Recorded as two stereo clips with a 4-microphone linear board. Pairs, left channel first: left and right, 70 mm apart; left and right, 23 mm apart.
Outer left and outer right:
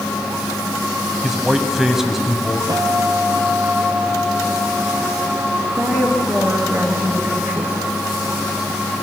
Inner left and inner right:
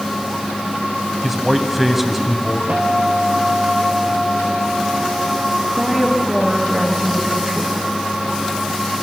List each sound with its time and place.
1.2 s a man speaking: 5° right (ahead or behind), 2 m
2.7 s a guitar: 65° right (ahead or behind), 3 m
5.6 s a woman speaking: 40° right (ahead or behind), 5.5 m